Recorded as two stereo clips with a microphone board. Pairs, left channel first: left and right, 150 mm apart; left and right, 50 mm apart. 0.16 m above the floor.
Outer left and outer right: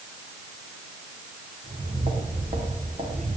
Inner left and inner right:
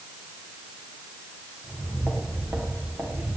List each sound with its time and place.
1.6 s footsteps: 45° right (ahead or behind), 5.5 m; by 3.4 s 55° right (ahead or behind), 5.5 m